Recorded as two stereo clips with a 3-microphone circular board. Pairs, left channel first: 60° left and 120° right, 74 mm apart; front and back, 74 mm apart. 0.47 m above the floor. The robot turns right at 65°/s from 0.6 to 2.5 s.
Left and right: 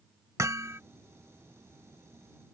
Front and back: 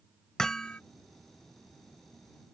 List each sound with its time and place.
0.4 s hammering: 80° right; by 0.8 s 70° right